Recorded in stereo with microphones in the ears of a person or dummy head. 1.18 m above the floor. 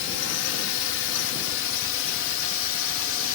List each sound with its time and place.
0.0 s a drone: 60° left (ahead or behind)